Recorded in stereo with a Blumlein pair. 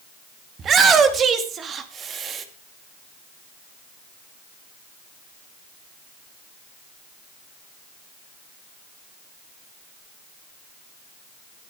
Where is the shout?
25° right, 2.5 m.